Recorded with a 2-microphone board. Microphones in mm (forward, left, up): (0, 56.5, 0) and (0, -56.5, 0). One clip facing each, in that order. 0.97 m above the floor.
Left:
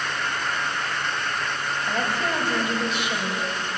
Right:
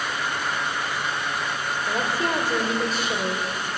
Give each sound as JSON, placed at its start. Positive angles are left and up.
{"t": 1.9, "sound": "a woman speaking", "side_deg": -40, "distance_m": 4.0}